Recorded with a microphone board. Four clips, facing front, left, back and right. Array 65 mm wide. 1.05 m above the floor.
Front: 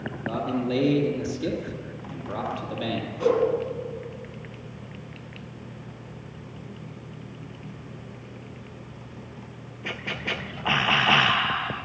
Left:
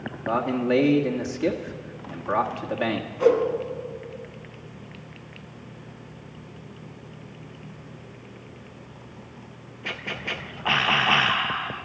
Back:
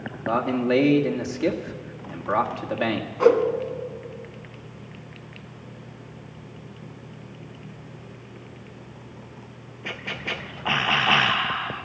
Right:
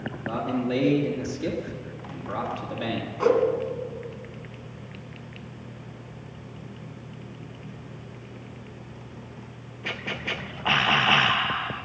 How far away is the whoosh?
About 2.5 m.